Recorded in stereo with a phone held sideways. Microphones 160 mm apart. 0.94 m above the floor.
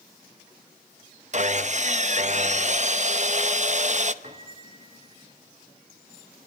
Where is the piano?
45° right (ahead or behind), 3 m.